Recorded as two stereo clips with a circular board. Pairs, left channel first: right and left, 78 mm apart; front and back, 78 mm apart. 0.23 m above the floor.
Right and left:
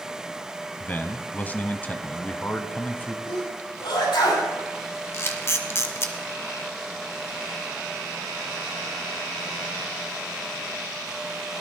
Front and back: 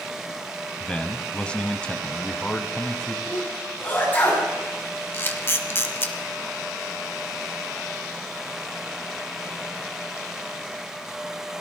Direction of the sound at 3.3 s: 70° right.